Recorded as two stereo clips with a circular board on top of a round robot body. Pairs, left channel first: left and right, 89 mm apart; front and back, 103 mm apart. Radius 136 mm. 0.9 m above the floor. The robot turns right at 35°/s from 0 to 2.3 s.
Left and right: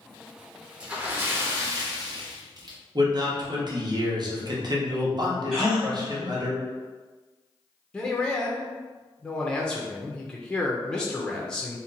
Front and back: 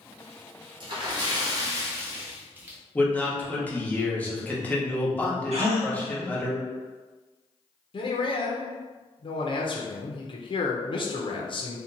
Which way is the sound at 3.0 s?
70° right.